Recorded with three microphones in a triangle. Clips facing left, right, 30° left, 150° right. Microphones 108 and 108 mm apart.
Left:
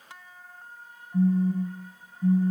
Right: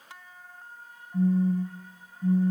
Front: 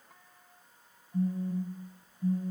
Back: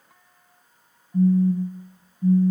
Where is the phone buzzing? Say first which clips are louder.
Left 1 dB, back 12 dB; 170° left, 1.3 m.